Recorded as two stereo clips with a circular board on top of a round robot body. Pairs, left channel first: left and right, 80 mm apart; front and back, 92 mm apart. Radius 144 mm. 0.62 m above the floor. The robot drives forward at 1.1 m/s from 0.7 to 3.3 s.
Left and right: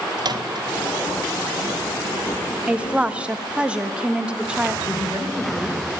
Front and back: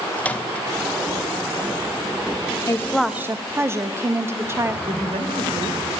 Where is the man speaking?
175° right, 3 m.